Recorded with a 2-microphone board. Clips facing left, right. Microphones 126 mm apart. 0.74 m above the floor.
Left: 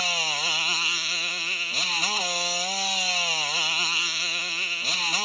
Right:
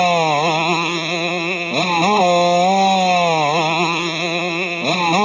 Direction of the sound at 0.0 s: 60° right (ahead or behind).